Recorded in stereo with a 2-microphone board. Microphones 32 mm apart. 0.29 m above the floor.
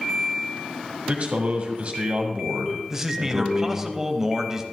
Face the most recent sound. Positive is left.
turn(degrees=-15)  # may be behind; listen again after turning